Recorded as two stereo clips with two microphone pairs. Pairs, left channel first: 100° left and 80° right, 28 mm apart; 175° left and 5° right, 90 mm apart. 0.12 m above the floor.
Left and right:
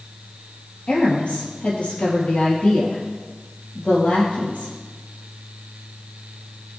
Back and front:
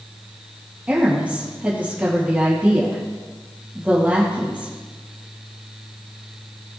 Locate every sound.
0.9 s a woman speaking: 70° left, 4 m